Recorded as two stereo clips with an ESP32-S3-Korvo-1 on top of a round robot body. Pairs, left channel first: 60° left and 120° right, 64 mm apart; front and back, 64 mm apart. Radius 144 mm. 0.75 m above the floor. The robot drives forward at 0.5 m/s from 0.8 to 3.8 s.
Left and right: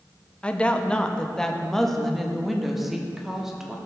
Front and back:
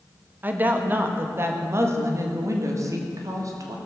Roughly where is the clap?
No clap in this recording.